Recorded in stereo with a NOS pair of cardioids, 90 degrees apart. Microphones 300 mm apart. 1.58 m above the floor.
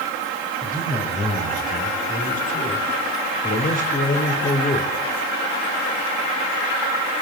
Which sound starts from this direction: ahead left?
A man speaking, at 0.6 s.